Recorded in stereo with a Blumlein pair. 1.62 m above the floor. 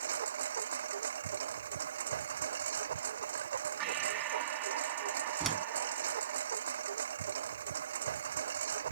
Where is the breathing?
35° right.